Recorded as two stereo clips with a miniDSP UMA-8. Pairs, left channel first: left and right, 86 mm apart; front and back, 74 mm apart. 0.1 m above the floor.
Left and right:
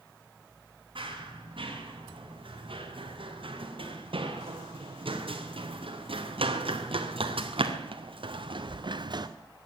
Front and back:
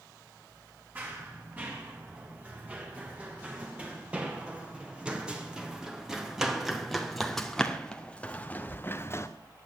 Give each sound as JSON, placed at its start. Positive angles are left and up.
{"t": 0.9, "sound": "running footsteps", "azimuth_deg": -115, "distance_m": 5.0}